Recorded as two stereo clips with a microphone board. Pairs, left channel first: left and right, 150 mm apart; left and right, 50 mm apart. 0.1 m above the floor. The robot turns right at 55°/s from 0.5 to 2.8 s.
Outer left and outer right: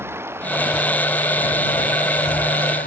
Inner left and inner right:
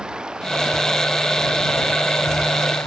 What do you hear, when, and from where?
0.0 s running water: 15° right; by 2.9 s 110° left